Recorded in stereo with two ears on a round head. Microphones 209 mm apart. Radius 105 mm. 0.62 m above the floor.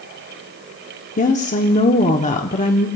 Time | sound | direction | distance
1.2 | a woman speaking | 35° left (ahead or behind) | 1.2 m